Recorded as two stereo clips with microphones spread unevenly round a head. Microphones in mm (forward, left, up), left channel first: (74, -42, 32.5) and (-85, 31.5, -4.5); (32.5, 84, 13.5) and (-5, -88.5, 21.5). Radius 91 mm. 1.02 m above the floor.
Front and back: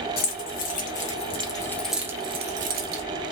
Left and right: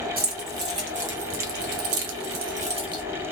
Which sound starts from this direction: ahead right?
Keys jangling, at 0.2 s.